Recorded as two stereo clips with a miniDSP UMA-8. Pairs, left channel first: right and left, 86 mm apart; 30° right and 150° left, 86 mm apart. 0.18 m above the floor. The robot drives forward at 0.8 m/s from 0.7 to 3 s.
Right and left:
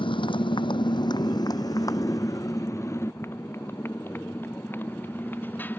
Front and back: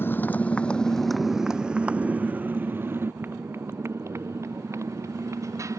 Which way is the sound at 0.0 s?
95° right.